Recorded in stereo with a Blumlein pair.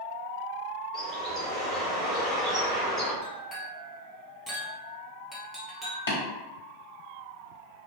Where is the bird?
15° right, 2.0 m.